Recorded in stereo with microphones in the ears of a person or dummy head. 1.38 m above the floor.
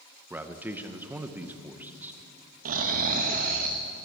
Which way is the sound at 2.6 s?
45° right (ahead or behind).